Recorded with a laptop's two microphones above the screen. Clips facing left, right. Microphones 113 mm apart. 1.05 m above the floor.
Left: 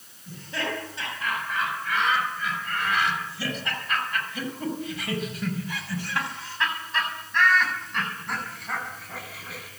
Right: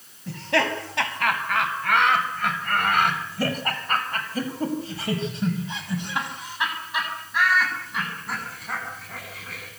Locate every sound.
0.3 s laughter: 85° right, 6.5 m; by 9.7 s 5° left (ahead or behind), 9 m